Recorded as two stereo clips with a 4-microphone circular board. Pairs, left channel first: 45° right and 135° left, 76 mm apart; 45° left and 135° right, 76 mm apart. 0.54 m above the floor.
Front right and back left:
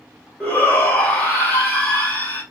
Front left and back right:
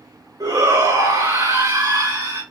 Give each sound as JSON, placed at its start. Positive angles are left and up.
{"t": 0.4, "sound": "a shout", "azimuth_deg": -115, "distance_m": 2.5}